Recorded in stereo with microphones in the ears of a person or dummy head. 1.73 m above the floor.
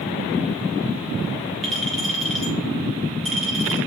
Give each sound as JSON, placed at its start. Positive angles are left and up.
{"t": 1.6, "sound": "a clink", "side_deg": 0, "distance_m": 3.0}